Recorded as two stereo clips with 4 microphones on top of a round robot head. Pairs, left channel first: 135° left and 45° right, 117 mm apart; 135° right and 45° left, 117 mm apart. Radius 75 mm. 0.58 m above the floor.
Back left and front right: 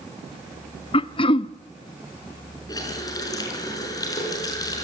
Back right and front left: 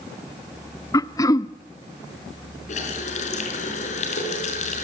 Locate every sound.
0.9 s throat clearing: 170° left, 0.6 m
2.7 s a running tap: 165° right, 4.5 m